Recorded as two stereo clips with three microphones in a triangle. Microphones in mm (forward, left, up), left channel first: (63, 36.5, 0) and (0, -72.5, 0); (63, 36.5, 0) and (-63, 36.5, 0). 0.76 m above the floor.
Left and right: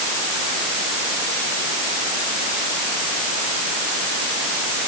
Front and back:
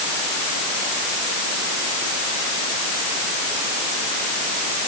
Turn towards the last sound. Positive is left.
No sound to turn to.